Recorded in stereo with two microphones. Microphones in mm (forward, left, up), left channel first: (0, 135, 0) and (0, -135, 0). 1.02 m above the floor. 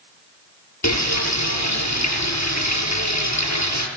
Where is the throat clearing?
I don't hear throat clearing.